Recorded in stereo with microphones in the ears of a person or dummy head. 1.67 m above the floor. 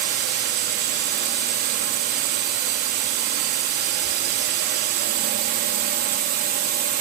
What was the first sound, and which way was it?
A drone, 45° right (ahead or behind).